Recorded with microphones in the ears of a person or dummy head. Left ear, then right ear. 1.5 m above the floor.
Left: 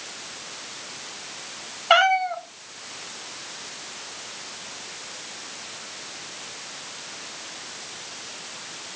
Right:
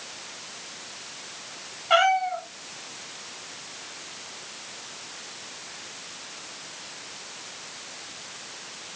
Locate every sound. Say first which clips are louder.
1.9 s a cat meowing: left 2 dB; 30° left (ahead or behind), 1.3 m